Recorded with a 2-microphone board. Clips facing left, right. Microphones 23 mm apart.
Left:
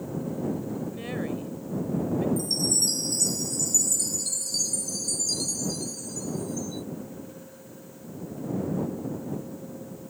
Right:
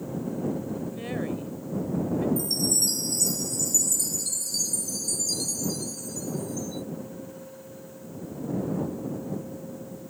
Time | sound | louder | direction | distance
0.9 | a woman speaking | right 1 dB | 5° left (ahead or behind) | ?
2.4 | a chime | even | 5° left (ahead or behind) | ?